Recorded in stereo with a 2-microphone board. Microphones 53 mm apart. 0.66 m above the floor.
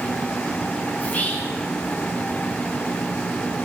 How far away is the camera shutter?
No camera shutter in this recording.